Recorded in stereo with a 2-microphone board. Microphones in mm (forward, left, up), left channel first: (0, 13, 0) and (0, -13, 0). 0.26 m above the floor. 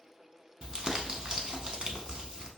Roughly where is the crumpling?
Right.